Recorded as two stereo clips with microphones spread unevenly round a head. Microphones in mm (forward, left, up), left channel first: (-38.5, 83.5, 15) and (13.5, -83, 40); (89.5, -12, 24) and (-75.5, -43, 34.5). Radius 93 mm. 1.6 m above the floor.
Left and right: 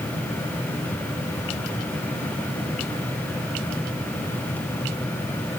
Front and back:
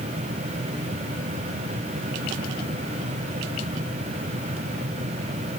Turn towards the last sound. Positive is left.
No sound to turn to.